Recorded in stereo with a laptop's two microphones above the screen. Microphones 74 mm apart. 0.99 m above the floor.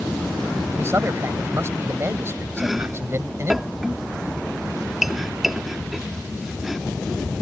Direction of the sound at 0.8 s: 35° right (ahead or behind).